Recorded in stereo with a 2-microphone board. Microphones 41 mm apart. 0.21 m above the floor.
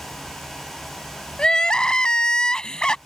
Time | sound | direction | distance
1.4 | crying | 20° left (ahead or behind) | ?